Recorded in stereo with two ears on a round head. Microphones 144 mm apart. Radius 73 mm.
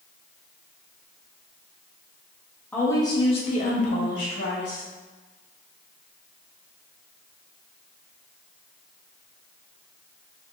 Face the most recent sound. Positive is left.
turn(degrees=75)  # may be behind; listen again after turning